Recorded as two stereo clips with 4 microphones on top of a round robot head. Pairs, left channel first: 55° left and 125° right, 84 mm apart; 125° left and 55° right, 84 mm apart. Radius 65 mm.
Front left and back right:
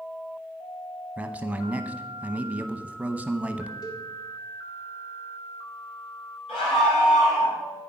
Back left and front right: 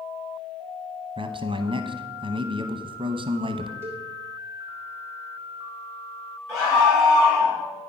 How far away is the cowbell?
About 1.8 m.